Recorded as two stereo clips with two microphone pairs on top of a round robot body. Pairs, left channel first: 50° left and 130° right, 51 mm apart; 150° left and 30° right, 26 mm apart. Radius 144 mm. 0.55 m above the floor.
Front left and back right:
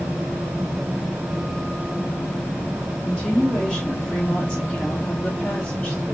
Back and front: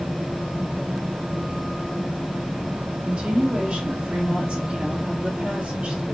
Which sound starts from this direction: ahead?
A woman speaking, at 3.0 s.